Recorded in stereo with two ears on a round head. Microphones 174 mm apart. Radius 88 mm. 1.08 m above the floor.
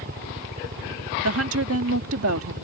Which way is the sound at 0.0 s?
45° right (ahead or behind).